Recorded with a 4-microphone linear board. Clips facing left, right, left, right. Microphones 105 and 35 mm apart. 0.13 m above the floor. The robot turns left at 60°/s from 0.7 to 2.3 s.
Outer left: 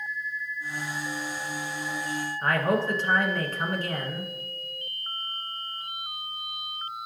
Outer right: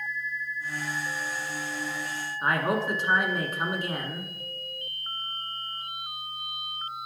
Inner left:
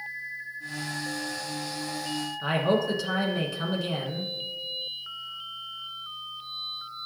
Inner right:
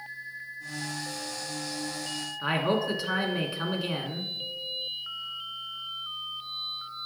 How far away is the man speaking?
About 1.1 m.